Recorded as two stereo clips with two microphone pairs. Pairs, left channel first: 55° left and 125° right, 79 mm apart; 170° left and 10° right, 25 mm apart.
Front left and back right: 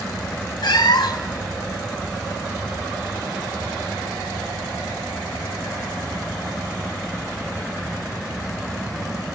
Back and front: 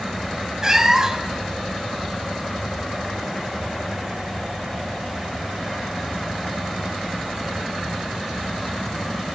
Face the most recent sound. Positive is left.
turn(degrees=60)